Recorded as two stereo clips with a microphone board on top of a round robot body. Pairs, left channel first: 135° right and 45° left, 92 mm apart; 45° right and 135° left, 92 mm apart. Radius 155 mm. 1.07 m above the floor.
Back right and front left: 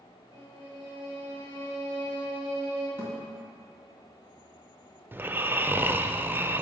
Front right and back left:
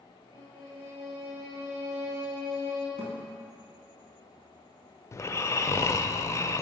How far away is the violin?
About 3 m.